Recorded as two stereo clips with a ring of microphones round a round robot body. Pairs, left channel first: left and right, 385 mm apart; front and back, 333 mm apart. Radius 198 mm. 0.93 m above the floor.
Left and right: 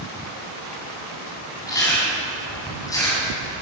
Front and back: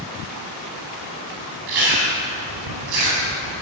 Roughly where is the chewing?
Behind.